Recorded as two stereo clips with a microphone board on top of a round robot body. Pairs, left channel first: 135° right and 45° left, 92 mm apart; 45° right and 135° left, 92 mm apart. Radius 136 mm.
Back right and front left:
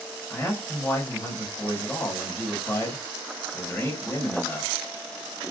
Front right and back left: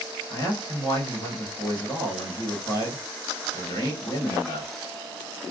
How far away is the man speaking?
About 1.7 m.